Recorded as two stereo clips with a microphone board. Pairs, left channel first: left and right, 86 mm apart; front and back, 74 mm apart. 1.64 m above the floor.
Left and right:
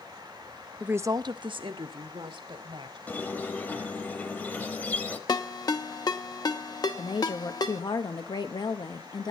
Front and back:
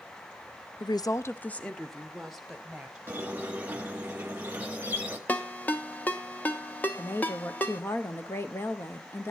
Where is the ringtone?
65° left, 1.0 m.